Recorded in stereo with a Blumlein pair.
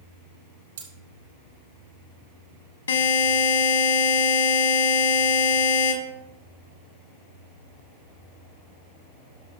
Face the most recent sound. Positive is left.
turn(degrees=70)